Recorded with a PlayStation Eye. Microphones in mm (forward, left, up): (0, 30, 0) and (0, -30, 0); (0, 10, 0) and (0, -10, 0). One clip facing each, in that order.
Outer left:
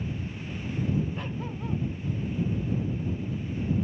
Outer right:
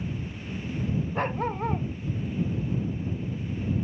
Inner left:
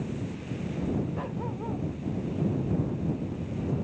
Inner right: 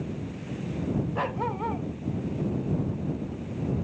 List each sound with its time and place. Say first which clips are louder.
1.1 s a dog barking: outer right 7 dB, inner right 5 dB; 45° right (ahead or behind)